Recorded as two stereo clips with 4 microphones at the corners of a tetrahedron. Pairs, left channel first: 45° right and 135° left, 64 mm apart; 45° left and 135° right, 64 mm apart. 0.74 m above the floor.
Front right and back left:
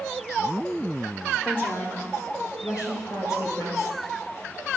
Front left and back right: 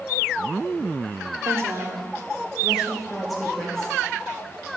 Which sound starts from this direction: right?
A woman speaking, at 1.4 s.